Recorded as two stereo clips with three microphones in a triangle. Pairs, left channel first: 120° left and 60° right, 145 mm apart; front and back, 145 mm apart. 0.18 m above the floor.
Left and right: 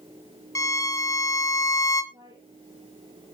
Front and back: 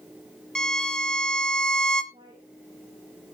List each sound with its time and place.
0.6 s a violin: 80° left, 1.5 m
2.1 s a woman speaking: 120° right, 3 m